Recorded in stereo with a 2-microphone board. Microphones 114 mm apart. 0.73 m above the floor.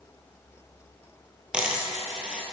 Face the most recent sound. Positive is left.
turn(degrees=-10)  # may be behind; listen again after turning